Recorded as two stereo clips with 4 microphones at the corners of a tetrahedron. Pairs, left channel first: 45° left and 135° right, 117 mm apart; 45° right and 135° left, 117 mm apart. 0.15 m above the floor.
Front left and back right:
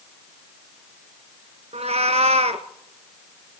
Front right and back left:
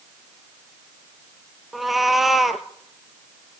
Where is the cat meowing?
135° right, 0.9 m.